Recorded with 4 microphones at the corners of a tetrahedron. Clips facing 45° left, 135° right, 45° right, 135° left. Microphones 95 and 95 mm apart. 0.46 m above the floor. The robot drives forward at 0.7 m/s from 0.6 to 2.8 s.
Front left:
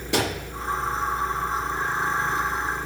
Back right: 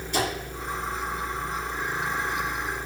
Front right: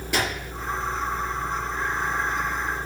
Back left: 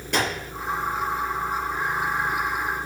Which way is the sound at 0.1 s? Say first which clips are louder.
Front left 2 dB, back left 2 dB; 40° left.